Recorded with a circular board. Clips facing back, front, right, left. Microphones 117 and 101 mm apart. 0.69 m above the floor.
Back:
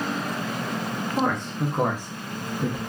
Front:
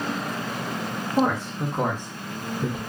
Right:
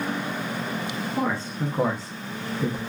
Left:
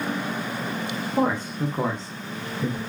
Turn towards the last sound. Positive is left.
turn(degrees=-130)